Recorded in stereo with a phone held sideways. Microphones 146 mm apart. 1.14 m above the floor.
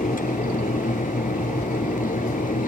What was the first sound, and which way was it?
A fan, 70° left (ahead or behind).